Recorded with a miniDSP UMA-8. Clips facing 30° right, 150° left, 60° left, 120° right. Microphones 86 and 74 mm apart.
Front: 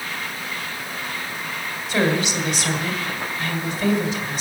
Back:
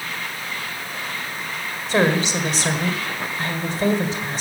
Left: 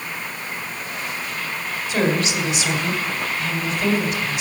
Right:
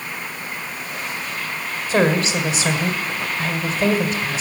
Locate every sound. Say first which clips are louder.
1.9 s a woman speaking: back 2 dB, right 3 dB; 165° right, 1.7 m